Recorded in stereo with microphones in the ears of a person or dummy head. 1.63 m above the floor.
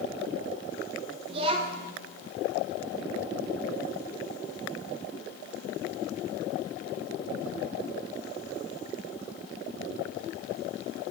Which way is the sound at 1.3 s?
30° right (ahead or behind).